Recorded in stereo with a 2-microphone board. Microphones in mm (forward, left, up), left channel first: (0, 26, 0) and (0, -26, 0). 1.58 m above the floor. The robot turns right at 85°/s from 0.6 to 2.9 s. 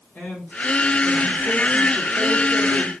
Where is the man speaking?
35° left, 1.6 m; by 2.9 s 130° right, 1.6 m.